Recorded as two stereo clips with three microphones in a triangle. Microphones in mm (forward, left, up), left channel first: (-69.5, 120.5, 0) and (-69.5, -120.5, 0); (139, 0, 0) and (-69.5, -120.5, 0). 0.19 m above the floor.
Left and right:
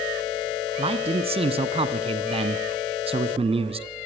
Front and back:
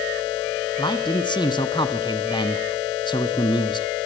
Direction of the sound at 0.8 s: 35° right.